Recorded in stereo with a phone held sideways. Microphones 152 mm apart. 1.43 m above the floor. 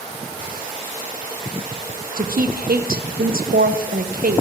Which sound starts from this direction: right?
A woman speaking, at 2.2 s.